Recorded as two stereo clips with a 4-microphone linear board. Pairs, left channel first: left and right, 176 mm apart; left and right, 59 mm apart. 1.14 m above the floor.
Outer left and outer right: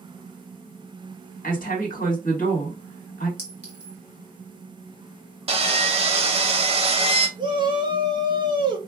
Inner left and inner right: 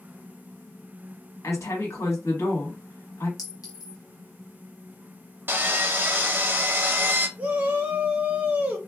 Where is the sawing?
35° right (ahead or behind), 0.6 m.